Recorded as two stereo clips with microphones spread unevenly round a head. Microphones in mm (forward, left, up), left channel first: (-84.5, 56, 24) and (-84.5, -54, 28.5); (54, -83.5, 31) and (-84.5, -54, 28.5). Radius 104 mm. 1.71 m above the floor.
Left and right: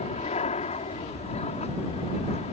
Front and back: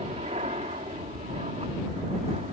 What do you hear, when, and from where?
0.0 s an aircraft: 105° left